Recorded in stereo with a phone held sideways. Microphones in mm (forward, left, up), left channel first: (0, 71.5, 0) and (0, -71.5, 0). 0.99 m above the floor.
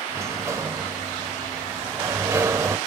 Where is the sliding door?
20° right (ahead or behind), 0.9 m.